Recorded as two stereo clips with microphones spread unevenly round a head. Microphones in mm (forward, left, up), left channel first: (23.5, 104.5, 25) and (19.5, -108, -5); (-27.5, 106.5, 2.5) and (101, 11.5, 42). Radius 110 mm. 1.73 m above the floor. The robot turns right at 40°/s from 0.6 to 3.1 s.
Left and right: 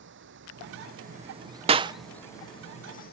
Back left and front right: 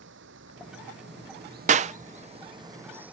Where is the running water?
55° right; by 3.1 s 45° left.